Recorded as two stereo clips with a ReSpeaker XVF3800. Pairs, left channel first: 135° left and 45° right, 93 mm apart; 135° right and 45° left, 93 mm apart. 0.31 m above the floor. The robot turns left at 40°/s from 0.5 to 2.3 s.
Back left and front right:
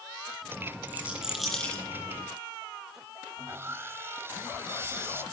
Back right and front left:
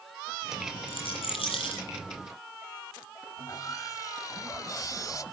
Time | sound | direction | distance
0.9 | a rattle | 115° right | 9 m
3.4 | sawing | 100° right | 1.1 m